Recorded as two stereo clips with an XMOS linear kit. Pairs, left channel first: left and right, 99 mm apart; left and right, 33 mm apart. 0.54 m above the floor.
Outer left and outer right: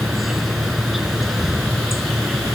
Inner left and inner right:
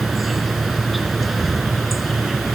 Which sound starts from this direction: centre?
An insect, at 0.0 s.